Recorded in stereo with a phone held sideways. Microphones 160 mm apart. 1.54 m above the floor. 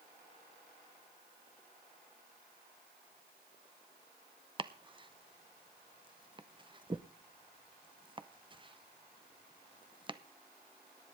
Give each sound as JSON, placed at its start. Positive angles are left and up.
{"t": 4.6, "sound": "chopping", "side_deg": -30, "distance_m": 0.6}